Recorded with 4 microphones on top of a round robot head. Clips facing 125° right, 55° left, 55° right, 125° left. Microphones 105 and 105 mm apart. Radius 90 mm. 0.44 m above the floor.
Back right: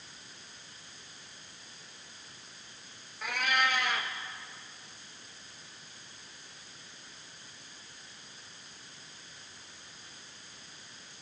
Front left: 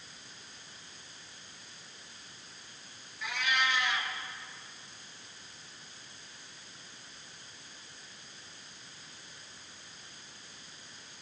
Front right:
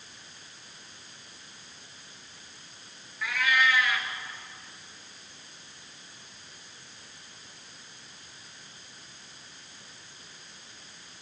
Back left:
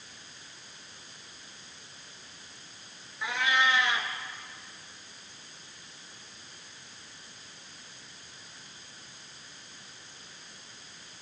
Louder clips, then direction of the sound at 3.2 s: Back right 2 dB, front right 1 dB; 170° right.